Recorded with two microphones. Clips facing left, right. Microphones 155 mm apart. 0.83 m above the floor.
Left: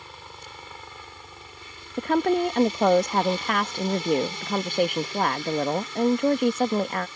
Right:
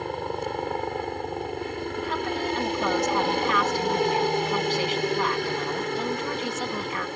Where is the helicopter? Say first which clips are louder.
Right 16 dB; 65° right (ahead or behind).